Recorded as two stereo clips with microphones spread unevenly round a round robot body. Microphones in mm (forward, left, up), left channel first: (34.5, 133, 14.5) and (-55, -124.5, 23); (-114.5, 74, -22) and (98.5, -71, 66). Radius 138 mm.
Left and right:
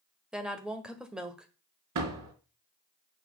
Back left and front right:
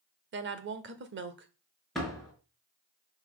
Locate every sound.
0.3 s a woman speaking: 20° right, 1.4 m
1.9 s a door slam: 130° right, 4 m